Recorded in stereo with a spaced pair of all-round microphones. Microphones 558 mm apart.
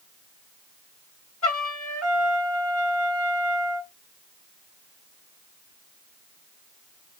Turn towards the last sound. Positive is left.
turn(degrees=30)  # may be behind; listen again after turning